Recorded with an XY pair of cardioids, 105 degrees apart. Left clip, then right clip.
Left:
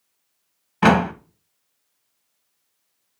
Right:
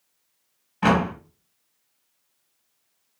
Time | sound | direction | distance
0.8 | a door slam | 60° left | 1.9 m